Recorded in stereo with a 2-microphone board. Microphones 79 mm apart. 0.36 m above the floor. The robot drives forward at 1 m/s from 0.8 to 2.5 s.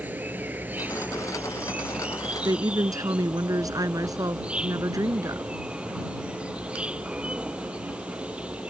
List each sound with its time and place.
0.0 s an insect: 25° right (ahead or behind); by 8.7 s 15° right (ahead or behind)
2.5 s a woman speaking: 55° right (ahead or behind)